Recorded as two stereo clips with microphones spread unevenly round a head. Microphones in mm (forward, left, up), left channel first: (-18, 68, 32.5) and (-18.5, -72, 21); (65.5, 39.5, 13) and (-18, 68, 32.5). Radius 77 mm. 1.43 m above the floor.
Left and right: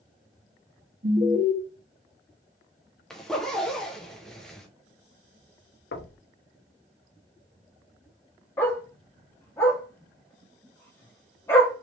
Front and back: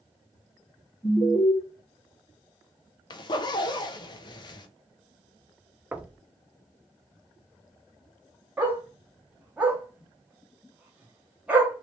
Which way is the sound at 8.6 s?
135° left.